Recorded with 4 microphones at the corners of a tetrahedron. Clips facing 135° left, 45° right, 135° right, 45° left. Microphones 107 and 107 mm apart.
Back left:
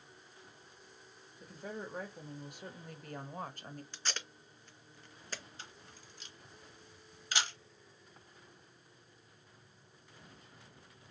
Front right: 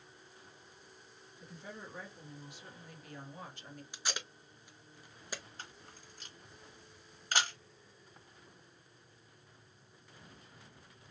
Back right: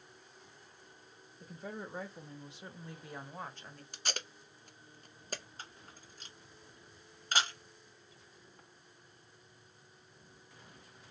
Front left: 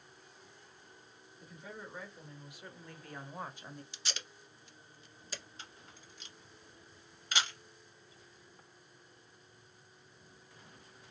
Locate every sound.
1.4 s a woman speaking: straight behind, 1.4 m; by 3.8 s 110° left, 0.7 m
3.9 s tape being pulled: 120° right, 0.5 m
5.6 s a camera shutter: 85° right, 1.1 m